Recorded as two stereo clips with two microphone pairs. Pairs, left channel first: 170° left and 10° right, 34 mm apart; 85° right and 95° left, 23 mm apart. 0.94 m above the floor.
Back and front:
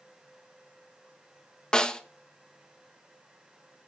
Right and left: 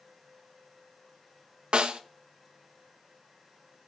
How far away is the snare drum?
About 1.1 m.